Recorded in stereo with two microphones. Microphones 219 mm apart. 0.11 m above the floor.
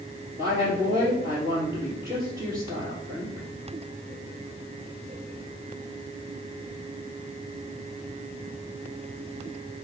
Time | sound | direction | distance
0.4 | a woman speaking | 15° right (ahead or behind) | 2.5 m